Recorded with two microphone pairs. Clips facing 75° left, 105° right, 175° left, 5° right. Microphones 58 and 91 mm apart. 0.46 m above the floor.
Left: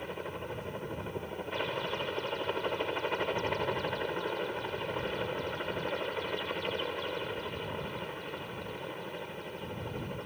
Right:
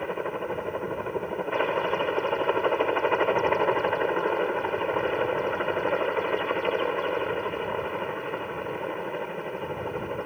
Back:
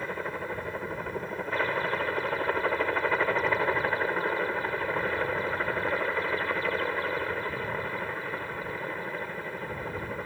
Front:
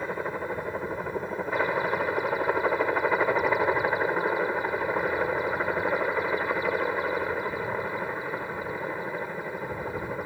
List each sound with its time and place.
0.0 s a helicopter: 75° right